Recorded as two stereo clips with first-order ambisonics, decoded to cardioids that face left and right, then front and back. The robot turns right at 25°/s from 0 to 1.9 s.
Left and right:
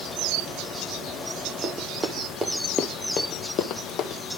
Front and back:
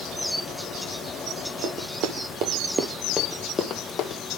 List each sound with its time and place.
1.6 s running footsteps: 160° right, 1.5 m; by 4.2 s 50° left, 1.5 m